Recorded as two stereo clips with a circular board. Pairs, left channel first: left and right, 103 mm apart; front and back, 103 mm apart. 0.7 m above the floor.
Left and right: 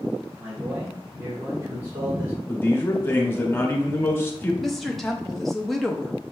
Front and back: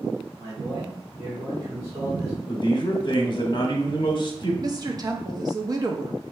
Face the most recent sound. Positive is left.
turn(degrees=175)